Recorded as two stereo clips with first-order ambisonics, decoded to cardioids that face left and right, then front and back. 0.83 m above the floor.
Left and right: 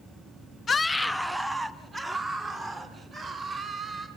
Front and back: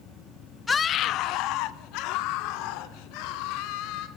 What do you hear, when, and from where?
0.7 s a scream: 55° left, 0.7 m; by 4.1 s 20° right, 4.5 m